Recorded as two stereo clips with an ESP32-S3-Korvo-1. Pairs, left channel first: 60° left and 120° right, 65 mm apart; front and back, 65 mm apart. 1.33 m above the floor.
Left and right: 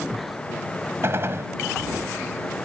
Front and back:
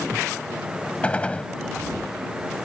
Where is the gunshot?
75° right.